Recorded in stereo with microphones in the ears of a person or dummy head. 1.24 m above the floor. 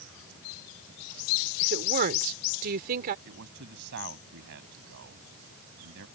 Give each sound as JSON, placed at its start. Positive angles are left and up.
{"t": 1.6, "sound": "a woman speaking", "side_deg": -50}
{"t": 3.2, "sound": "a man speaking", "side_deg": -60}